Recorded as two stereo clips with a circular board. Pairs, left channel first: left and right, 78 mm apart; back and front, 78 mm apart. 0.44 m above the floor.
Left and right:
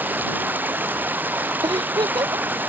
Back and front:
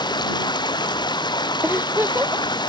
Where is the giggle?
65° right.